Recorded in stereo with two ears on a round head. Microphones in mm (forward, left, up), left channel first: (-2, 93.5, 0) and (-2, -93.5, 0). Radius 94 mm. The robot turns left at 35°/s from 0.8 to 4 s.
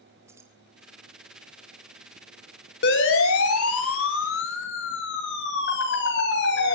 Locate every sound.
0.3 s keys jangling: 15° right (ahead or behind), 3.5 m
2.8 s a siren: 55° left (ahead or behind), 4.5 m